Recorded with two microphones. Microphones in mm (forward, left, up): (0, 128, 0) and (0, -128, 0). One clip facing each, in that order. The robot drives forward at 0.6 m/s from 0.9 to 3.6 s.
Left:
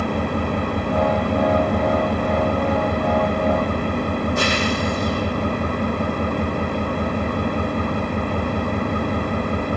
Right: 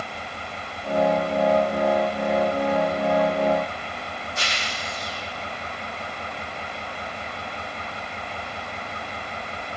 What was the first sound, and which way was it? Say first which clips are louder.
An engine running: left 16 dB; 60° left (ahead or behind).